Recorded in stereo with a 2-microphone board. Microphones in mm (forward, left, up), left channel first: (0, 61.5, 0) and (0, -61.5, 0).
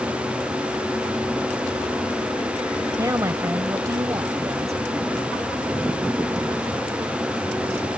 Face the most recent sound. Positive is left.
turn(degrees=-25)  # may be behind; listen again after turning